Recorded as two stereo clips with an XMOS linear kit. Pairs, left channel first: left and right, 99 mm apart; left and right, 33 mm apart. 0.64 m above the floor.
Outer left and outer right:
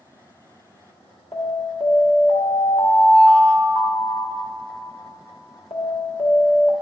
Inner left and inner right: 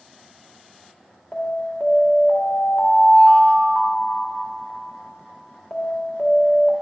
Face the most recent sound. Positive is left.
turn(degrees=65)  # may be behind; listen again after turning